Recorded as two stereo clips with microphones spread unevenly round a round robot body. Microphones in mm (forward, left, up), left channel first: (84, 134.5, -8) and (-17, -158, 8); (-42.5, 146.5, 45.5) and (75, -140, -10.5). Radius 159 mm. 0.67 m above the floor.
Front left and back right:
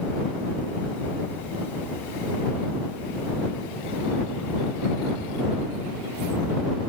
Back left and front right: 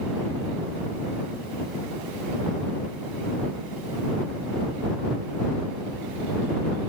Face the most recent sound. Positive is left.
No sound to turn to.